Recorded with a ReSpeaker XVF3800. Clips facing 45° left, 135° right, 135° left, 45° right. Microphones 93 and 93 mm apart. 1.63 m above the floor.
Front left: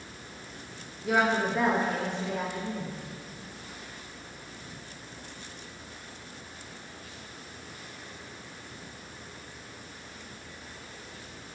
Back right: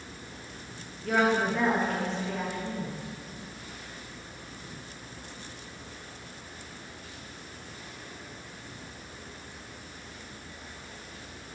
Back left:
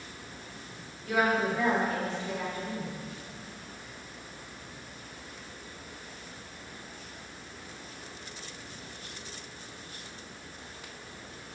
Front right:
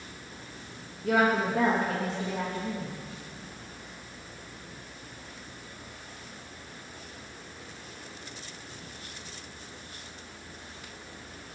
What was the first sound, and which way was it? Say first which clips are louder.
A woman speaking: even, front right 2 dB; 35° right.